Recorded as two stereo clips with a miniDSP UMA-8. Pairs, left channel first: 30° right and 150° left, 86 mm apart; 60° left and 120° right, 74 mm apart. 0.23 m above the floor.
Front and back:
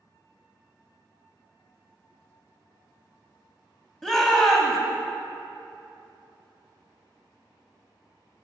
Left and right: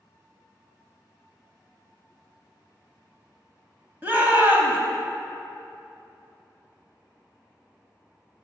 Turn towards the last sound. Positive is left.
turn(degrees=-110)